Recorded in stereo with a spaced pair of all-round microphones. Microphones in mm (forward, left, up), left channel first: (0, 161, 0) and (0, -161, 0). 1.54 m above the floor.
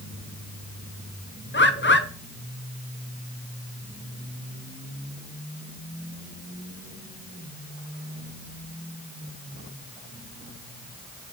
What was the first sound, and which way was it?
A bird, 35° left (ahead or behind).